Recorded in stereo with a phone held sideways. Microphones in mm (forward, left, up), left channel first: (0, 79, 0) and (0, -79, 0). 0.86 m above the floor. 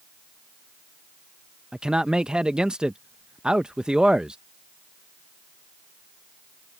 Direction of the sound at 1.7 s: 5° right (ahead or behind).